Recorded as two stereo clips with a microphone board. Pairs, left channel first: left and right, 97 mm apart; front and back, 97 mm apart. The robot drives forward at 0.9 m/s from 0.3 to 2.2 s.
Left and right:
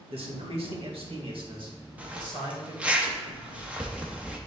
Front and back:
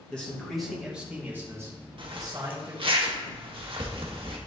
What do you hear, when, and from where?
0.1 s a man speaking: 80° right, 1.7 m; by 3.0 s 130° right, 2 m
2.0 s a zipper: 160° right, 0.9 m; by 4.4 s 165° right, 1.1 m